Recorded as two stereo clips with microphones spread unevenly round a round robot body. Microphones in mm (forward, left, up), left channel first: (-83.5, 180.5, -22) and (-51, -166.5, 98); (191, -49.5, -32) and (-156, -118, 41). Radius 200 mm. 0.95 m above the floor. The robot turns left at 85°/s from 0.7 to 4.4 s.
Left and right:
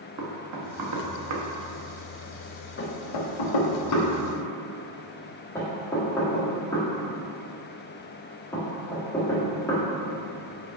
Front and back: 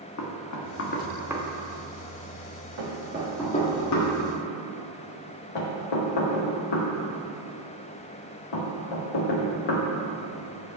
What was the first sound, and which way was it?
Knocking, 30° right.